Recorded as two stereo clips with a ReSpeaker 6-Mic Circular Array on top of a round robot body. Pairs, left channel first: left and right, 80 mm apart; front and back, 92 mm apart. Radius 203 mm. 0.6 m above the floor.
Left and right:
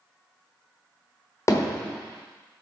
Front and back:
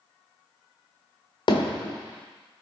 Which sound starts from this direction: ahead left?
Hammering, at 1.5 s.